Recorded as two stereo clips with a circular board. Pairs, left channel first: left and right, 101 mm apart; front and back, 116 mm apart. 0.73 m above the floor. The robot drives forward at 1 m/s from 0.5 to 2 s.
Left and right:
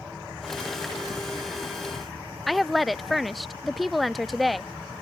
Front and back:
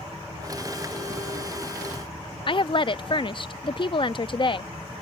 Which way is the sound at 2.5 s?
Straight ahead.